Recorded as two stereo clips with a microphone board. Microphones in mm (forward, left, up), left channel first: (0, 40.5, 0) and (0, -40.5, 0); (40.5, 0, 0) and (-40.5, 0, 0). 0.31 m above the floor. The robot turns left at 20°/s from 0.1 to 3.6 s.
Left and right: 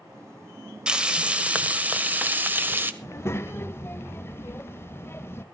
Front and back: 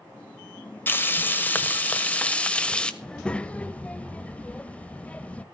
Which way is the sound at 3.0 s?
70° left.